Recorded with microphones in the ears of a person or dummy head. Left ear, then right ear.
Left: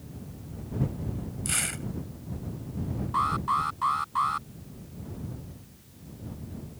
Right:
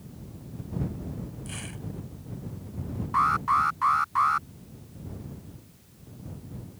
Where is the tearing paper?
60° left (ahead or behind).